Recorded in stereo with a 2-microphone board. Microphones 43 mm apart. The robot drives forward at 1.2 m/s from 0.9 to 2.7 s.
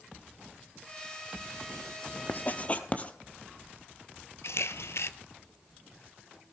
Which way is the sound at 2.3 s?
50° left (ahead or behind).